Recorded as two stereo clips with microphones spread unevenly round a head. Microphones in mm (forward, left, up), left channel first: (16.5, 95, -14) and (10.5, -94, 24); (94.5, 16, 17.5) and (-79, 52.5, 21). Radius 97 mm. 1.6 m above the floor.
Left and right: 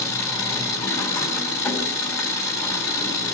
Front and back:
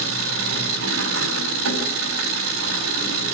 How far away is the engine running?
About 3.5 m.